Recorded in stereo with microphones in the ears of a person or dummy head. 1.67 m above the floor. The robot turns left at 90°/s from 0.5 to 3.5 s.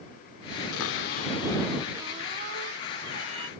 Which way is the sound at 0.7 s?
95° left.